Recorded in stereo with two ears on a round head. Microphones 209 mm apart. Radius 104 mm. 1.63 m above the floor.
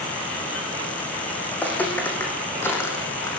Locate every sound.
1.5 s footsteps: 5° left (ahead or behind), 7 m; by 3.4 s 15° left (ahead or behind), 5.5 m